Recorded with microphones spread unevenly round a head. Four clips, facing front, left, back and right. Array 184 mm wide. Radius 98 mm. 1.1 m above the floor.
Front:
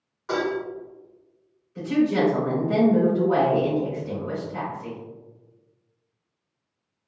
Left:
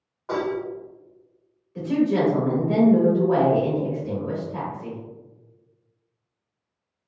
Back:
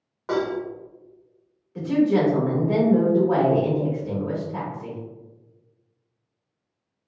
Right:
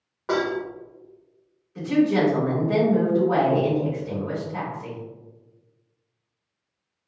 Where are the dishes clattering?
115° right, 1.0 m.